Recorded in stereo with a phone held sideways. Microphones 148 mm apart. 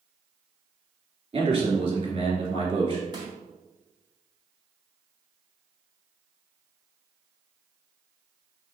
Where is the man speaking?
40° right (ahead or behind), 2.5 m.